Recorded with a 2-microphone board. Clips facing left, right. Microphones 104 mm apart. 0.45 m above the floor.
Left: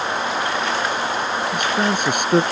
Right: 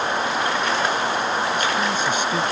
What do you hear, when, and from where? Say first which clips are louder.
1.5 s a man speaking: left 2 dB; 60° left (ahead or behind)